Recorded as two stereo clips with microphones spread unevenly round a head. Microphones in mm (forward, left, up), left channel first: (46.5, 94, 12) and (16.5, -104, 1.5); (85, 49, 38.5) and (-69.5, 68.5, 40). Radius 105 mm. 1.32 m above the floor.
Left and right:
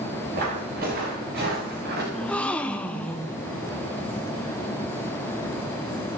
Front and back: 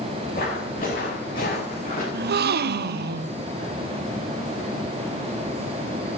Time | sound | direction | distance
0.3 | footsteps | 55° right | 9.5 m
2.1 | a gasp | 165° left | 0.6 m